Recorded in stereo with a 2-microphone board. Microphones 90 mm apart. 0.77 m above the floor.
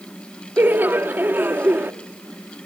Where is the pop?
No pop in this recording.